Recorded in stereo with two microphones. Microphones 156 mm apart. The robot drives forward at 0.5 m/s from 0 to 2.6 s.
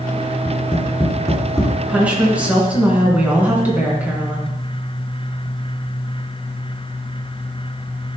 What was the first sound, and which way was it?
Tapping, 15° left (ahead or behind).